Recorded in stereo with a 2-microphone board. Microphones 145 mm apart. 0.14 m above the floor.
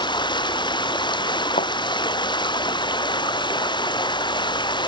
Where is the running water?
30° left (ahead or behind).